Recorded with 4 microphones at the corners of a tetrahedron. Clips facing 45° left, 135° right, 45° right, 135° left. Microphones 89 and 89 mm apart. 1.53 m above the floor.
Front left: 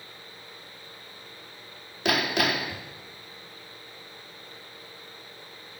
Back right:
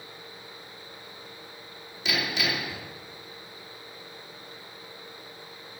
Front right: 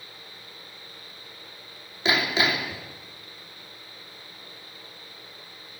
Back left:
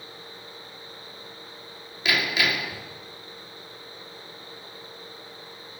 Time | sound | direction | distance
2.0 | hammering | 15° left | 2.5 m